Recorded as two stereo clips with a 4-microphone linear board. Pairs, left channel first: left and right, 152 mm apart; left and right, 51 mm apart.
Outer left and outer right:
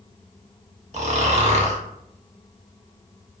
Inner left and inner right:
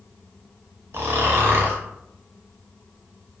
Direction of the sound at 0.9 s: 50° right (ahead or behind).